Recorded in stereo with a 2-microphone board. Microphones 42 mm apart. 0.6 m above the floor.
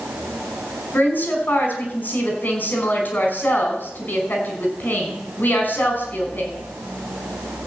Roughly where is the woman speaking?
Left.